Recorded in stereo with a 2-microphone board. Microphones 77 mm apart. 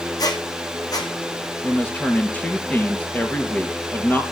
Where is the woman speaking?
20° left (ahead or behind), 2.5 m.